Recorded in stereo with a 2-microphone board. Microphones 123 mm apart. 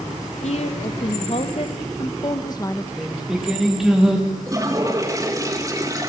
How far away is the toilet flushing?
About 2.5 m.